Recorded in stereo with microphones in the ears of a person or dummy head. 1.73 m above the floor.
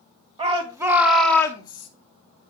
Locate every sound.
0.4 s a shout: 30° right (ahead or behind), 2.0 m; by 1.9 s 30° left (ahead or behind), 2 m